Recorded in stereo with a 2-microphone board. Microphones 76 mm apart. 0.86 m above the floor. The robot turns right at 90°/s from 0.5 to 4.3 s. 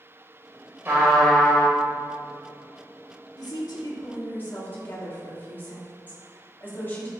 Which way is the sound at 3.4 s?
70° left.